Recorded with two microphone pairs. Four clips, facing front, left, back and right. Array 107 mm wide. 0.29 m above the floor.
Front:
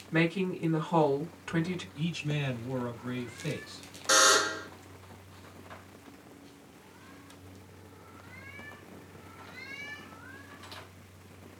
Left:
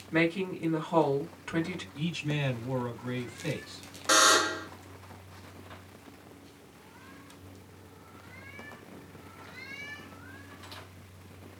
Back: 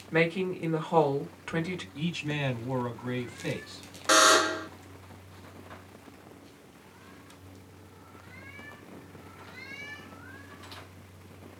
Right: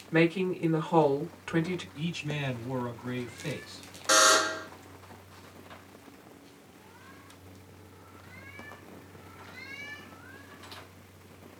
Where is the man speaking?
Straight behind, 1.9 m.